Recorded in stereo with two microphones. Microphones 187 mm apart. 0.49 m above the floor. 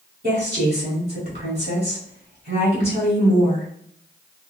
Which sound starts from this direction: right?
A woman speaking, at 0.2 s.